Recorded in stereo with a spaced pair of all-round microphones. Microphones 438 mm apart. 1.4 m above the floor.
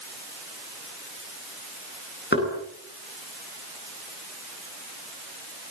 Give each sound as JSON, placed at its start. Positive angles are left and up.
{"t": 2.3, "sound": "knocking", "side_deg": 25, "distance_m": 10.0}